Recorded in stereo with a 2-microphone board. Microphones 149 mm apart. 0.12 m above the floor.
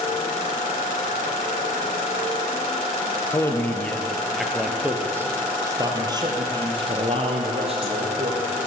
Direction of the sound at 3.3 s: 20° left (ahead or behind).